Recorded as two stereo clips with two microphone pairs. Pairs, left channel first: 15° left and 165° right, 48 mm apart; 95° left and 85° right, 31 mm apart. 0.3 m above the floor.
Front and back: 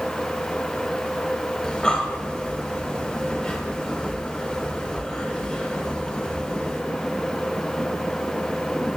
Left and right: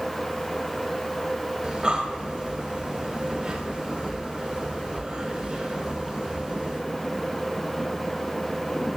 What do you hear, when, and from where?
1.6 s breathing: 45° right, 0.9 m